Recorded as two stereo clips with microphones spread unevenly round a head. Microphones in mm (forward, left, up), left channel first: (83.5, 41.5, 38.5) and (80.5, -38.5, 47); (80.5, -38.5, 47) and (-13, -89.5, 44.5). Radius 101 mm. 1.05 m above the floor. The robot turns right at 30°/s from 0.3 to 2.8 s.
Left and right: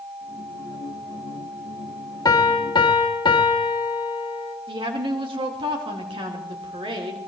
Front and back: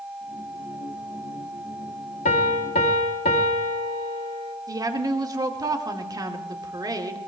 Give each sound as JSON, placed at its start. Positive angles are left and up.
{"t": 2.2, "sound": "a piano", "azimuth_deg": 45, "distance_m": 1.3}
{"t": 4.7, "sound": "a woman speaking", "azimuth_deg": -100, "distance_m": 2.5}